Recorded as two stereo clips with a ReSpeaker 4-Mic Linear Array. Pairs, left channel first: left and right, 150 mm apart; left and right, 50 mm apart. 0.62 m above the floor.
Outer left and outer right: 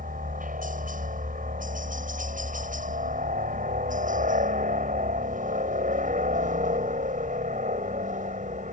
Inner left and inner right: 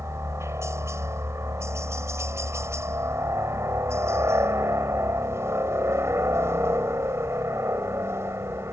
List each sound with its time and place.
0.0 s a helicopter: 65° right (ahead or behind); by 8.7 s 55° right (ahead or behind)